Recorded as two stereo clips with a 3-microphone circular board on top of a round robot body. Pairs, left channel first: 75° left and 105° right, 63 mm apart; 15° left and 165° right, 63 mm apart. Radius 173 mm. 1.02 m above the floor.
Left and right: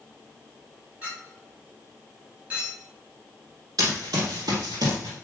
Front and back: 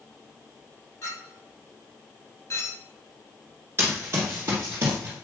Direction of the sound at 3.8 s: 115° right.